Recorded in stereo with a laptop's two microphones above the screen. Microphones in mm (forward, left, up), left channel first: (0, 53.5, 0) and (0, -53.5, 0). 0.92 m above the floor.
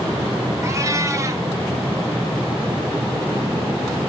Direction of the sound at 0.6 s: 30° right (ahead or behind).